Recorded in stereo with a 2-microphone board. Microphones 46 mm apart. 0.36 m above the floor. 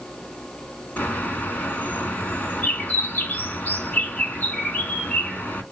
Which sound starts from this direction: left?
A bird, at 1.0 s.